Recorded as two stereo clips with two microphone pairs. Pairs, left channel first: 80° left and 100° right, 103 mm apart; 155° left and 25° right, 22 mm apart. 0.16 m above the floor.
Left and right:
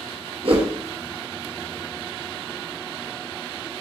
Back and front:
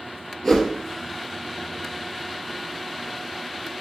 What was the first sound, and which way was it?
A whoosh, 120° right.